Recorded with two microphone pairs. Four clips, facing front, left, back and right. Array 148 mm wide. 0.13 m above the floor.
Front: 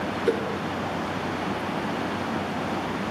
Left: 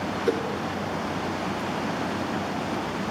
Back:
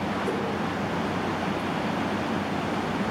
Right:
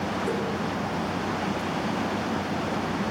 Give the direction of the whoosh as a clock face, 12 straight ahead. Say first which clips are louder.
Left 6 dB, front 8 dB; 11 o'clock.